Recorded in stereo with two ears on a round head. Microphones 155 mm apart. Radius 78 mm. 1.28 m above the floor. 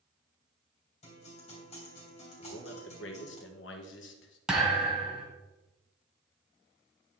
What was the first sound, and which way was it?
A guitar, 35° left (ahead or behind).